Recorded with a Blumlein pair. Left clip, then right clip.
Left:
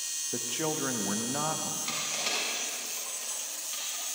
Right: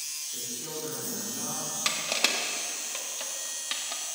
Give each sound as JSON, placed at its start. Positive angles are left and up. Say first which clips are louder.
{"t": 0.3, "sound": "a man speaking", "louder": "left 5 dB", "azimuth_deg": 40, "distance_m": 1.5}
{"t": 1.9, "sound": "crushing", "louder": "right 7 dB", "azimuth_deg": -40, "distance_m": 1.6}